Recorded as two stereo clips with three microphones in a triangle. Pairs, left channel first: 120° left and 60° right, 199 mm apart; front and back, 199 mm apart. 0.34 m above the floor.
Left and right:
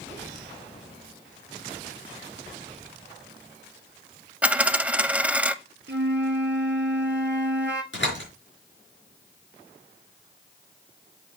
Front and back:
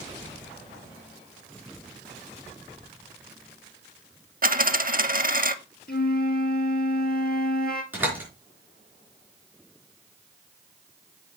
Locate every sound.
4.4 s a dropped coin: 145° right, 0.5 m
5.9 s a flute: 35° right, 1.0 m
7.9 s a door slam: 100° left, 4.5 m